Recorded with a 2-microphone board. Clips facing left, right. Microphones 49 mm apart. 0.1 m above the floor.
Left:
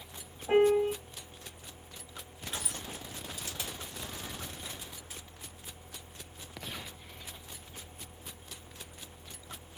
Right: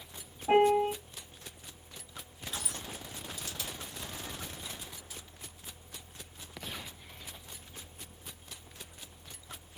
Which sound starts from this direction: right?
A piano, at 0.5 s.